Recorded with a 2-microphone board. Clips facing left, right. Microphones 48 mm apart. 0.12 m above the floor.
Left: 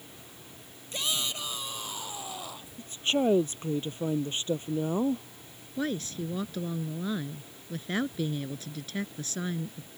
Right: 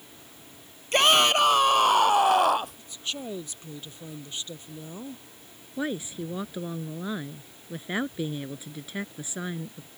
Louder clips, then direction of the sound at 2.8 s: Left 9 dB; 40° left (ahead or behind).